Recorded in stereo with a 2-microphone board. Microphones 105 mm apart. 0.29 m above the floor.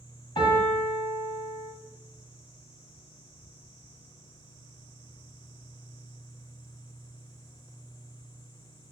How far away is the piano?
About 1.0 m.